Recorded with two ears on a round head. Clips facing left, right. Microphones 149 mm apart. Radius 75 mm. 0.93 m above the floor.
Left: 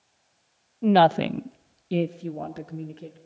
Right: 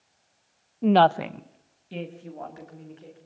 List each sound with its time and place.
0.8 s a woman speaking: 5° right (ahead or behind), 0.7 m; by 3.2 s 40° left (ahead or behind), 2.5 m